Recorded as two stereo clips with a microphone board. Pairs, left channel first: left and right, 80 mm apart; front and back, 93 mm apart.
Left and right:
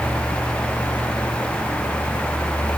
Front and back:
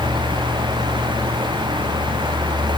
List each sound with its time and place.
Only background noise.